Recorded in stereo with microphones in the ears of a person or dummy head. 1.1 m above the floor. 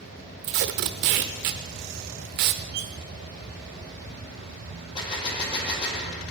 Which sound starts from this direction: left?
A gunshot, at 5.0 s.